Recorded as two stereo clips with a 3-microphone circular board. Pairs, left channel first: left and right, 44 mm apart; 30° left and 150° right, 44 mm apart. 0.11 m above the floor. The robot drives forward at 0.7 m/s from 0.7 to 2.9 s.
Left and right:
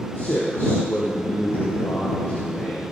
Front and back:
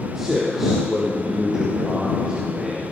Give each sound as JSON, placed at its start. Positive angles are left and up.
{"t": 0.1, "sound": "a man speaking", "azimuth_deg": 130, "distance_m": 3.5}